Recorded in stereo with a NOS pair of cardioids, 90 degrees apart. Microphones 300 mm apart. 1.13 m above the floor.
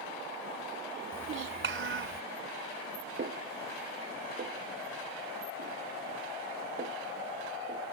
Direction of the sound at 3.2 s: 40° right.